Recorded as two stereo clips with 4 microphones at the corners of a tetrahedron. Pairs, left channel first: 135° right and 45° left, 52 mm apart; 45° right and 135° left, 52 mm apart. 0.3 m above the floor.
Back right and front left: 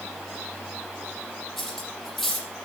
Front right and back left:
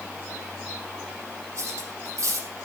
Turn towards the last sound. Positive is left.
turn(degrees=140)